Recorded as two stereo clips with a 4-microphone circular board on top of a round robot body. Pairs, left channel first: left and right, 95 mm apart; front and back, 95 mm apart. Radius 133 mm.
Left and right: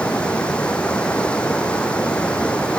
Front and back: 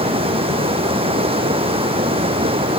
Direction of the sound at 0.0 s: 170° left.